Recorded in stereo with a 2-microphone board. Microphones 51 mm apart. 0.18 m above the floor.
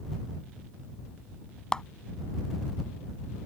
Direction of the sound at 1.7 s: 15° left (ahead or behind).